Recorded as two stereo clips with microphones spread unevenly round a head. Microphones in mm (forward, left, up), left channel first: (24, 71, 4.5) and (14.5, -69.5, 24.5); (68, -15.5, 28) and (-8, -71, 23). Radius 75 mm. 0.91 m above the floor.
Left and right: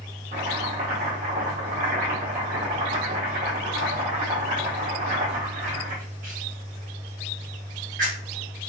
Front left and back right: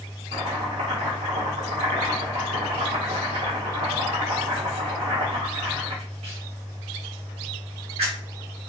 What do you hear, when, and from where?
0.3 s chopping: 135° right, 1.0 m